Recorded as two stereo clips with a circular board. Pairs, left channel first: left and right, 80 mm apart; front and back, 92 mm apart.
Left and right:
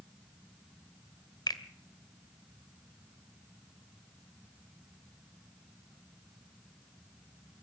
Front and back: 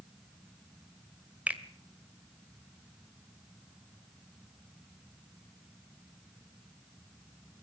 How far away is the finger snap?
About 1.8 m.